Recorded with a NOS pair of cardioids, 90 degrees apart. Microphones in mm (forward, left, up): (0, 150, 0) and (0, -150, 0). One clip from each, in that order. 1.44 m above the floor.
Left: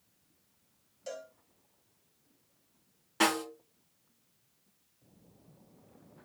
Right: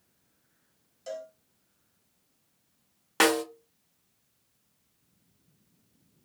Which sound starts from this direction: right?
A snare drum, at 3.2 s.